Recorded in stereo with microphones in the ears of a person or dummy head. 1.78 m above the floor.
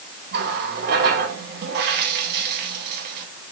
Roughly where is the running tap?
Right.